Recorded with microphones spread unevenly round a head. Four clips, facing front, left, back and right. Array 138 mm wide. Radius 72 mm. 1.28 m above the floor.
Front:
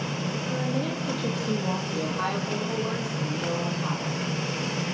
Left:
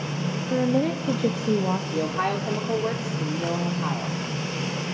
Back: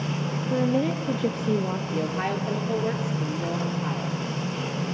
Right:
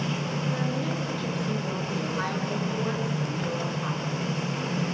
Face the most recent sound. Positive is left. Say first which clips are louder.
# left 4 dB, back 1 dB
turn(degrees=125)